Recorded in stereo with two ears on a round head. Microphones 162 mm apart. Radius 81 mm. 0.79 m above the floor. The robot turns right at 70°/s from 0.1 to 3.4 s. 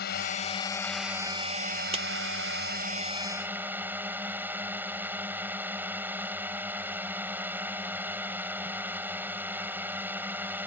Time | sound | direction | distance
0.0 | a drone | 120° left | ?
1.9 | a clap | 35° right (ahead or behind) | ?